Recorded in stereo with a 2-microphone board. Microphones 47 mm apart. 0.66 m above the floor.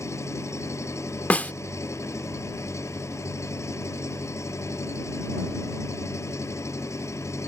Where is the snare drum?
30° left (ahead or behind).